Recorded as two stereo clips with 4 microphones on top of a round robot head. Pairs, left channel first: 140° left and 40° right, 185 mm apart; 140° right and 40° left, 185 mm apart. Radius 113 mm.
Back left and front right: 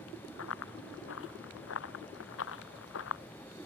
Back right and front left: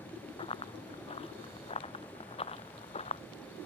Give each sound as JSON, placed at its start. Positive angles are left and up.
{"t": 0.4, "sound": "running footsteps", "azimuth_deg": 155}